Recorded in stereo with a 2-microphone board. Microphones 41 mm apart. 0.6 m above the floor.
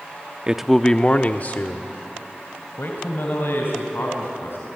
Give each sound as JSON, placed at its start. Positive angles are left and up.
{"t": 0.5, "sound": "a man speaking", "side_deg": -20, "distance_m": 0.6}